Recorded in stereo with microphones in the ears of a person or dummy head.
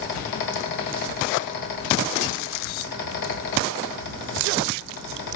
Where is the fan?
55° left (ahead or behind), 1.5 m.